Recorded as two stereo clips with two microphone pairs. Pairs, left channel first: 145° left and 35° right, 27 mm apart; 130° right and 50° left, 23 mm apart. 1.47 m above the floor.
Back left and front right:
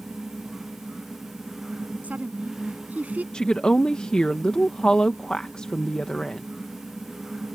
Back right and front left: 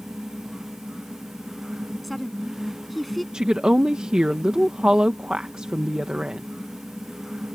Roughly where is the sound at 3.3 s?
Left.